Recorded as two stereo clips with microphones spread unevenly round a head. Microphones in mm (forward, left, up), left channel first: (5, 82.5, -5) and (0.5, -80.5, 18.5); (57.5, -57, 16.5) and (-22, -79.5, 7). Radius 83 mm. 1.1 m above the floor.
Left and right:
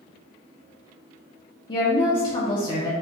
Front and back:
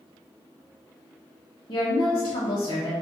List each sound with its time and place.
1.7 s a woman speaking: 50° left, 0.6 m